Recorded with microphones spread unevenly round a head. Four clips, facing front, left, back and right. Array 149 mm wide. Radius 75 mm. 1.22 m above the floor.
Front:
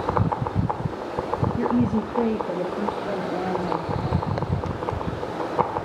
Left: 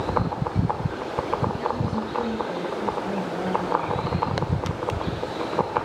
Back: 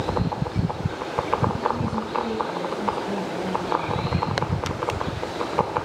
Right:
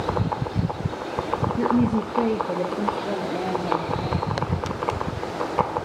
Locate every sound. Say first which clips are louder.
1.6 s a woman speaking: right 6 dB, front 3 dB; 60° right, 0.9 m; by 4.3 s 40° right, 4 m